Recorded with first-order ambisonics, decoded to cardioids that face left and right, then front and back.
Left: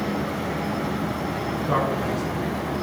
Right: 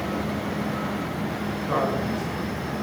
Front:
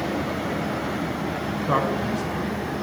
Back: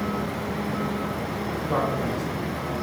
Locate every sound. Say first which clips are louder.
1.7 s a man speaking: left 1 dB, front 2 dB; 10° left, 5 m